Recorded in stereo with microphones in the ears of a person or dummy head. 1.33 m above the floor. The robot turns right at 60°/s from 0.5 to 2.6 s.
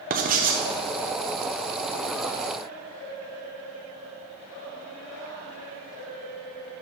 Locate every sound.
0.1 s writing: 40° right (ahead or behind), 0.6 m